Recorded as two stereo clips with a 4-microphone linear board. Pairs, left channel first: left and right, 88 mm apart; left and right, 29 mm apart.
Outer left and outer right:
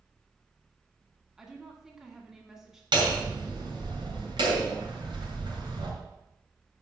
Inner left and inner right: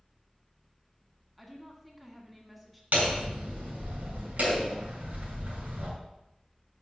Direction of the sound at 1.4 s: 5° right (ahead or behind).